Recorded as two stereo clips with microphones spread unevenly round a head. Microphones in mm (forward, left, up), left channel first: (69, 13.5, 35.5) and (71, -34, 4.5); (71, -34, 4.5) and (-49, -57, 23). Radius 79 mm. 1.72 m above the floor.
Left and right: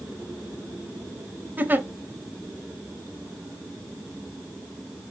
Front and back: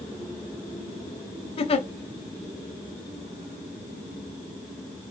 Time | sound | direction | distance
1.6 | a giggle | 35° right | 0.6 m